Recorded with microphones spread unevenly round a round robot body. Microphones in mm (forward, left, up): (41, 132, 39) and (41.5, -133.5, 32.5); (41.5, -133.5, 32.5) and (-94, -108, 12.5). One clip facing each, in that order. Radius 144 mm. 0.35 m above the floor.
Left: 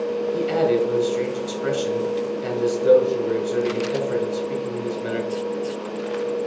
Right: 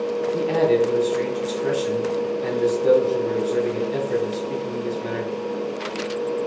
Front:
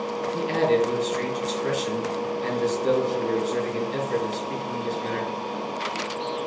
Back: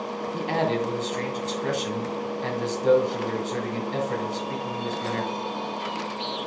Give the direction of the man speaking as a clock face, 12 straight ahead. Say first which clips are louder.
Right 1 dB, front 4 dB; 7 o'clock.